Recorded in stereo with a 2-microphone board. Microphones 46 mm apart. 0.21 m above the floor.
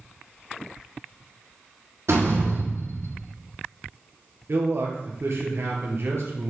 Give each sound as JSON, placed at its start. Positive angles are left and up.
{"t": 2.1, "sound": "a door slam", "side_deg": -70, "distance_m": 5.0}
{"t": 4.5, "sound": "a man speaking", "side_deg": -65, "distance_m": 3.5}